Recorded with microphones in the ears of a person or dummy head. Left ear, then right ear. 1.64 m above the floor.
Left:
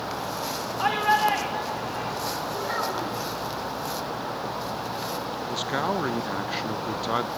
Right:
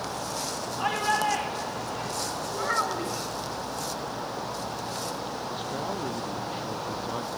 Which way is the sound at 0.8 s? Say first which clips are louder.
Left 4 dB; 10° left (ahead or behind).